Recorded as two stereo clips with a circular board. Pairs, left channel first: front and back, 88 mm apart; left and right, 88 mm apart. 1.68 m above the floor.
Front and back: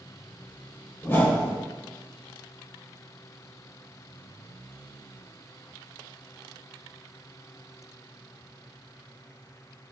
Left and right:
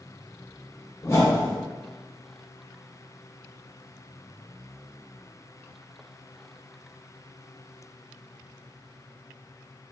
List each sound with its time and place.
1.0 s a whoosh: 50° left, 0.6 m